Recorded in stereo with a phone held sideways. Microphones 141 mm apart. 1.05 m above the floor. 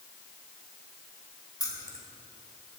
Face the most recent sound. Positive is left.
turn(degrees=25)  # may be behind; listen again after turning